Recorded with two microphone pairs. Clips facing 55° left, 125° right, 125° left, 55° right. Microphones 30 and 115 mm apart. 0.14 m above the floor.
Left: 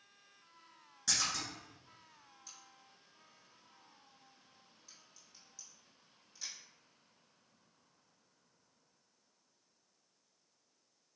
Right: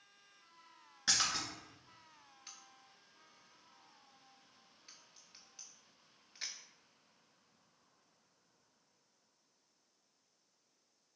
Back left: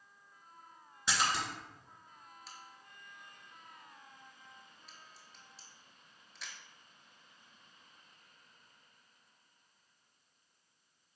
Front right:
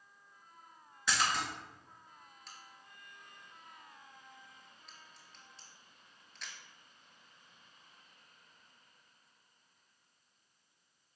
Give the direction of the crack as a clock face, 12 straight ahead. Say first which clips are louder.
Right 2 dB, back left 2 dB; 5 o'clock.